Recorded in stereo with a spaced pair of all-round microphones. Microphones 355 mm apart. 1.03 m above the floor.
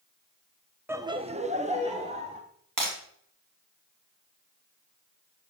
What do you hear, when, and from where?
0.9 s laughter: 5° right (ahead or behind), 0.8 m; by 2.4 s 15° right (ahead or behind), 2 m
2.8 s breaking glass: 65° right (ahead or behind), 4 m